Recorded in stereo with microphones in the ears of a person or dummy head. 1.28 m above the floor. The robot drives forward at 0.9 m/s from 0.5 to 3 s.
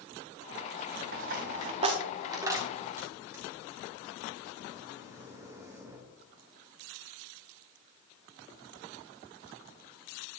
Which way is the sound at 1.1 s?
45° right (ahead or behind).